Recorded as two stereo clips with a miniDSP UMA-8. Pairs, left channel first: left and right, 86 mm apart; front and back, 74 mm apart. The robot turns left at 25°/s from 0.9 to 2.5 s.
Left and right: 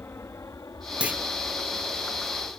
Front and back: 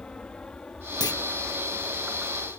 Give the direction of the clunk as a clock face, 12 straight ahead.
1 o'clock.